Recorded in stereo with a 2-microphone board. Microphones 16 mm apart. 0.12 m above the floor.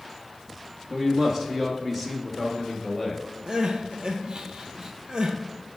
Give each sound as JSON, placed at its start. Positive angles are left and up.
{"t": 0.9, "sound": "a man speaking", "side_deg": -25, "distance_m": 2.0}
{"t": 3.5, "sound": "crying", "side_deg": -65, "distance_m": 1.1}